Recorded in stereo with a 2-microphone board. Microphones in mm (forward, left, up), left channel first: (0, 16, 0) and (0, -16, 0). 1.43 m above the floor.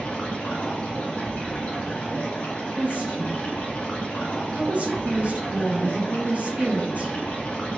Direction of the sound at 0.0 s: 40° left (ahead or behind).